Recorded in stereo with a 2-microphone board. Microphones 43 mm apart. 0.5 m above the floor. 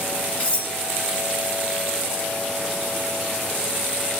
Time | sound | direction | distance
0.4 | cutlery clinking | 25° left (ahead or behind) | 4.5 m